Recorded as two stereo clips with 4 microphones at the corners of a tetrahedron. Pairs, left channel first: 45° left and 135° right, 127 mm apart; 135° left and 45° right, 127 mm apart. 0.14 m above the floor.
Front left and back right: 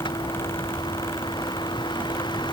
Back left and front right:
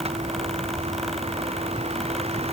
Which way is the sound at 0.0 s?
10° right.